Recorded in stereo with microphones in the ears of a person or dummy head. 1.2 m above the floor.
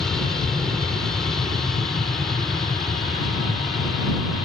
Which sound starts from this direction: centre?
An aircraft, at 0.0 s.